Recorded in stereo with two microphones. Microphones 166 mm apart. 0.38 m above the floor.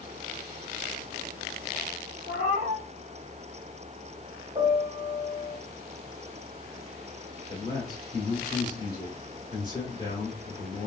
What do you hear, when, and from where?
2.3 s a cat meowing: 70° right (ahead or behind), 1.1 m
4.5 s a piano: 45° right (ahead or behind), 1.7 m
7.5 s a man speaking: 20° left (ahead or behind), 1.0 m